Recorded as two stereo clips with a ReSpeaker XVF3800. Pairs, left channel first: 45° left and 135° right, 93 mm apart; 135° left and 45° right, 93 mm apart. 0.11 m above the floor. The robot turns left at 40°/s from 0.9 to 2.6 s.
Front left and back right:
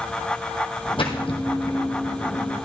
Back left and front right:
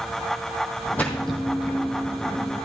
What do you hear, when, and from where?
1.0 s a splash: 60° left, 2.5 m; by 1.8 s 30° left, 2.5 m